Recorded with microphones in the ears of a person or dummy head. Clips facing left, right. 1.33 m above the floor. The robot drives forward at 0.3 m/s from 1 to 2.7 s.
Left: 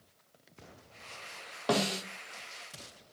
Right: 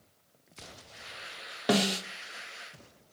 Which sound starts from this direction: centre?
A snare drum, at 1.7 s.